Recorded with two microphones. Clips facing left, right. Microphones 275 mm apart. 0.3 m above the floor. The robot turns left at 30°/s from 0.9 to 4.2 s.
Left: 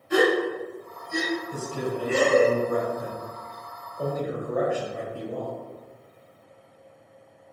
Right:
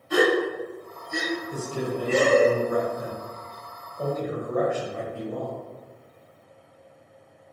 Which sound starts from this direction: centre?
A gasp, at 0.1 s.